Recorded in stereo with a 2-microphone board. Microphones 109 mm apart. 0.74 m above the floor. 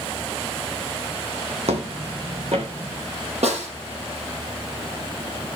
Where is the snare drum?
80° right, 6 m.